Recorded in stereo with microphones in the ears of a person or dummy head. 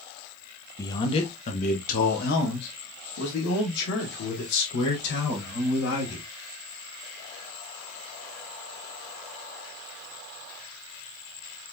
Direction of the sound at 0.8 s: 15° left (ahead or behind).